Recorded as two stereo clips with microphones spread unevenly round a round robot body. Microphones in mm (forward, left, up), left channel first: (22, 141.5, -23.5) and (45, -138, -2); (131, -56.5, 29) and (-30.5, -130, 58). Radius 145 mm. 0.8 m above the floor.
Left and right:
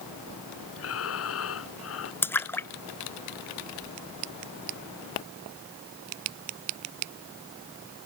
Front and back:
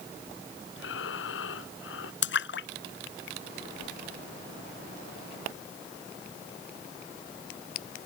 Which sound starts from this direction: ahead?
A splash, at 2.2 s.